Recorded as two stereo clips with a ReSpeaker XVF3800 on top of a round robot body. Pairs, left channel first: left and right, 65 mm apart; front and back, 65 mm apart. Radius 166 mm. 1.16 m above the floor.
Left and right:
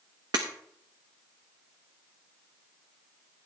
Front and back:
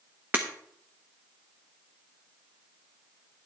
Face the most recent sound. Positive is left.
turn(degrees=-120)